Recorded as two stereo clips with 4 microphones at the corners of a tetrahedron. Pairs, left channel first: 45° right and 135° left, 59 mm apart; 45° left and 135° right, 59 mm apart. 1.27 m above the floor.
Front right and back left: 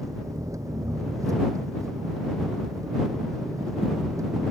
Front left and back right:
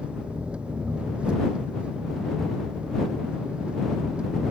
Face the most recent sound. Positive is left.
turn(degrees=155)